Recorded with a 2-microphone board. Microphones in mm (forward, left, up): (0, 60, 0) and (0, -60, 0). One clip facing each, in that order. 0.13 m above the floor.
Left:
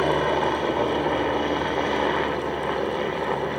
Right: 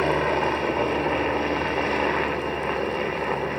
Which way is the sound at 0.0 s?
5° left (ahead or behind).